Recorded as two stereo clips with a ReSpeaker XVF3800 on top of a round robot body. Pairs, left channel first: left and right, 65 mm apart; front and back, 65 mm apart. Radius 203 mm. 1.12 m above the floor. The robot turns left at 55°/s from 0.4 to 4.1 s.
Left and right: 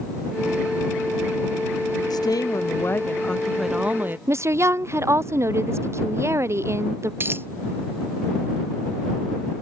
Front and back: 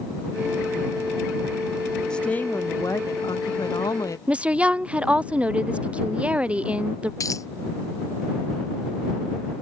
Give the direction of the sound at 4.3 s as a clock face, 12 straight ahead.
4 o'clock.